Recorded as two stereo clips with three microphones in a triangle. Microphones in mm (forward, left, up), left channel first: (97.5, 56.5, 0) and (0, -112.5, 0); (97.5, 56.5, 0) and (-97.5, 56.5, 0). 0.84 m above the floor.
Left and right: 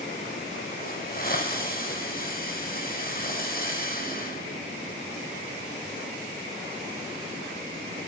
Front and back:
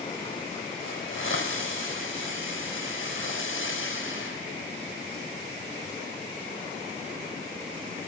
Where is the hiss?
15° left, 4.5 m.